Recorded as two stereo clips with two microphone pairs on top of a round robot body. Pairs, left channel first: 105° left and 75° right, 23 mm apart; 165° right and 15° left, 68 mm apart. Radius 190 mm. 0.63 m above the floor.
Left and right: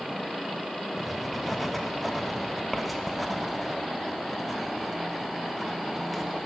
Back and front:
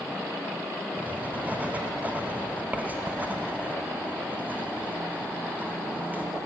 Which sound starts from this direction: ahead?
Writing, at 1.0 s.